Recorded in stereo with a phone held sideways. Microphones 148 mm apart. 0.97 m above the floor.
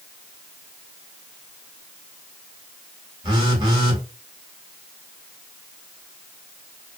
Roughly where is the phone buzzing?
Right.